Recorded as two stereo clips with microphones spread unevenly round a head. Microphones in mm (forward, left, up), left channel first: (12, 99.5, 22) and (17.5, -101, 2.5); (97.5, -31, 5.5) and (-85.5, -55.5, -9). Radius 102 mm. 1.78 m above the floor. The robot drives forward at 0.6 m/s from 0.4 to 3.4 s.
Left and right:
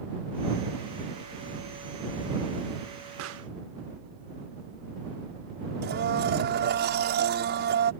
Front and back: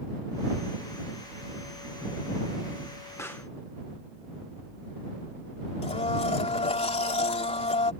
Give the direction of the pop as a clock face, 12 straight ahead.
2 o'clock.